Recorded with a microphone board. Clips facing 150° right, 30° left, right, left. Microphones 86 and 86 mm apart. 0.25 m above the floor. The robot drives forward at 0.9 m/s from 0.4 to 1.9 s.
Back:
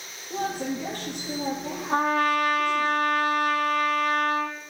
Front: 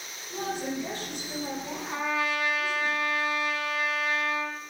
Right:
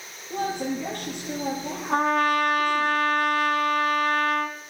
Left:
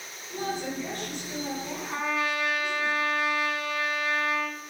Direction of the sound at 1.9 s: 120° right.